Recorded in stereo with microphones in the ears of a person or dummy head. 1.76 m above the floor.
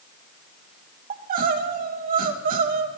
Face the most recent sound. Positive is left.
turn(degrees=-45)  # may be behind; listen again after turning